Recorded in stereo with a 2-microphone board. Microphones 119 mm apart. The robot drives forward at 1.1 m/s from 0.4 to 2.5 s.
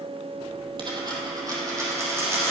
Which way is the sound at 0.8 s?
40° right (ahead or behind).